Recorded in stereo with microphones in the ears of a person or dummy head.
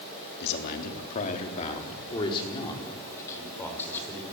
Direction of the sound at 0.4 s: 55° left (ahead or behind).